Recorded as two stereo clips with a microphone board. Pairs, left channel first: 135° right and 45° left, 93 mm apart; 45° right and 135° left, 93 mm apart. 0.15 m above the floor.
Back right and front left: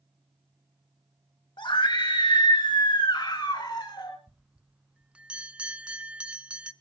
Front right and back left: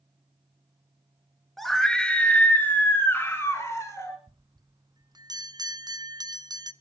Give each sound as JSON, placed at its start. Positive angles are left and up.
{"t": 1.6, "sound": "a scream", "azimuth_deg": -135, "distance_m": 2.0}
{"t": 4.3, "sound": "a bell", "azimuth_deg": 120, "distance_m": 0.5}